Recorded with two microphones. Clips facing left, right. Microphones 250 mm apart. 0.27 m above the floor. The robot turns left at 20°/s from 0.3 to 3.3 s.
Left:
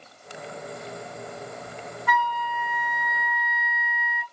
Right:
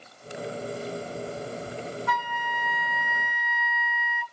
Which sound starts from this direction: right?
A flute, at 2.1 s.